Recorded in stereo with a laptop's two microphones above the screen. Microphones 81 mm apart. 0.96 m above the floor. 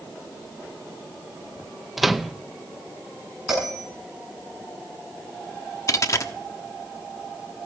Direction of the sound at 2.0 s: Centre (ahead or behind).